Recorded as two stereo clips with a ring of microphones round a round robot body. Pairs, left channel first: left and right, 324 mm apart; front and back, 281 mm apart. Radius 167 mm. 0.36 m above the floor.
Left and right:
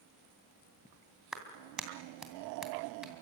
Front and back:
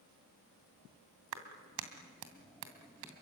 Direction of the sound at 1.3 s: Straight behind.